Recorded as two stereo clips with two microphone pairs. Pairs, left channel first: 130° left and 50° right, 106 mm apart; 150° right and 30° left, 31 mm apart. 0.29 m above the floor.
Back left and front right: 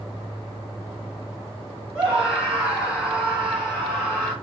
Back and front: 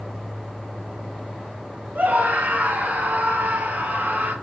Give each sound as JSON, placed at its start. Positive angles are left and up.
{"t": 1.9, "sound": "a scream", "azimuth_deg": 30, "distance_m": 6.0}